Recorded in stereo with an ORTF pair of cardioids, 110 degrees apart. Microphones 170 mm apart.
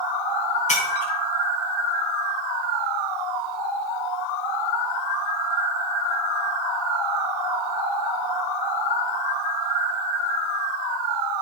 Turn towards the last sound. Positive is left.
turn(degrees=45)